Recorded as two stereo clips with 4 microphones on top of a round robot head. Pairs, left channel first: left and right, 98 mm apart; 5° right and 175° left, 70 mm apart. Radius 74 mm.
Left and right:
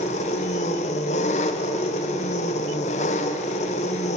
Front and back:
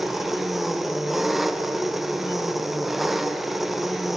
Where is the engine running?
85° left, 0.8 m.